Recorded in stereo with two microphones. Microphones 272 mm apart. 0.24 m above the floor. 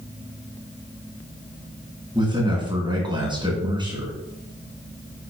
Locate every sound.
2.1 s a man speaking: 15° right (ahead or behind), 3 m